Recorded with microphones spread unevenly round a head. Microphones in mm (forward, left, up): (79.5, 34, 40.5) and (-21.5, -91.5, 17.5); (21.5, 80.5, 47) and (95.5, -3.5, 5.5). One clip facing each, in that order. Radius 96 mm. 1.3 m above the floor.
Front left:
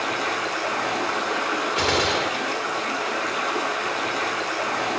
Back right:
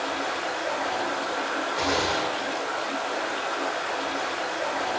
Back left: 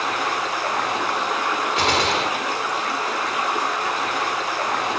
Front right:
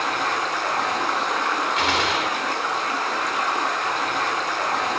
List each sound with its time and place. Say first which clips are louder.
0.0 s running water: front left 2 dB, even; 55° left, 7 m
1.8 s a gunshot: front left 2 dB, back left 2 dB; 90° left, 2.5 m